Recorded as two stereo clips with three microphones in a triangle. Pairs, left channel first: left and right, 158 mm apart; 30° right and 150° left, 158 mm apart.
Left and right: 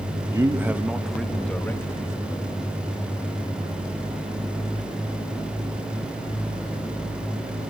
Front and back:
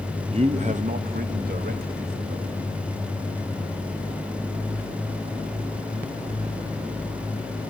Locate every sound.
0.3 s a man speaking: 155° right, 1.1 m; by 2.5 s 155° left, 1.7 m